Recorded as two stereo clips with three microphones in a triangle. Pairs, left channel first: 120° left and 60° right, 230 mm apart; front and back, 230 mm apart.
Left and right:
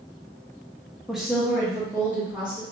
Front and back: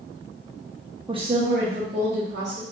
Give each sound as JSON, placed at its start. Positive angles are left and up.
{"t": 1.1, "sound": "a woman speaking", "azimuth_deg": -150, "distance_m": 0.5}